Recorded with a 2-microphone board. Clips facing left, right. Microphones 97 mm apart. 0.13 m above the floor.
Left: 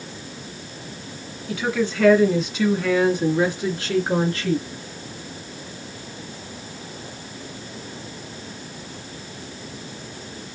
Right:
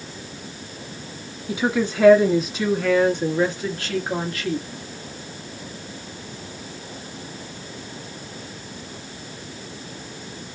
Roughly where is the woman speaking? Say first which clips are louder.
Right 1 dB; centre.